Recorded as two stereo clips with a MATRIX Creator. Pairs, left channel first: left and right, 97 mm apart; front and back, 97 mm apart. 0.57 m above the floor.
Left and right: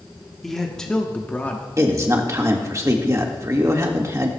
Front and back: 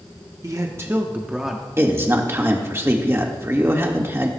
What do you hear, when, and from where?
0.4 s a man speaking: 175° left, 1.1 m; by 1.7 s 85° left, 1.0 m
1.8 s a man speaking: 130° right, 1.6 m